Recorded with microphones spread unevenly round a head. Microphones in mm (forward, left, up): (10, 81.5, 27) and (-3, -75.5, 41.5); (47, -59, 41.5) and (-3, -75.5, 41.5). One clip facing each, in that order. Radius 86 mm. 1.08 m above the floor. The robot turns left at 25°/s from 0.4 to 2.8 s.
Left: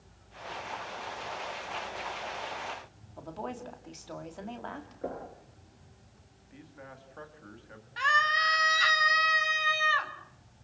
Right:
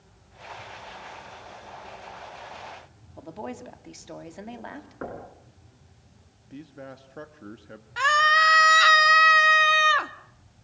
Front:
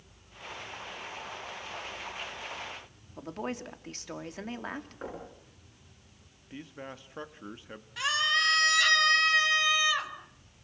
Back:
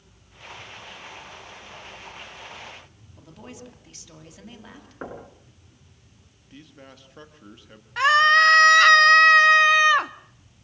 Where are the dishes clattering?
I don't hear dishes clattering.